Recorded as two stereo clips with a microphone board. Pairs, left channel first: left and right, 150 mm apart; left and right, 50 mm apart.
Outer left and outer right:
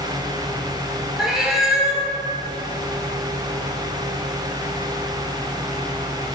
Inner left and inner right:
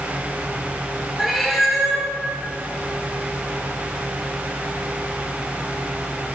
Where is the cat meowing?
5° right (ahead or behind), 1.0 m.